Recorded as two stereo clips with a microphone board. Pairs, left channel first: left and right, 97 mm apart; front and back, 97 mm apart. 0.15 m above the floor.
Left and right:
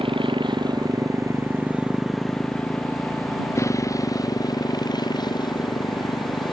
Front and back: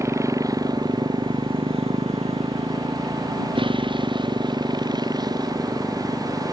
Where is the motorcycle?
120° right; by 6.5 s 130° left.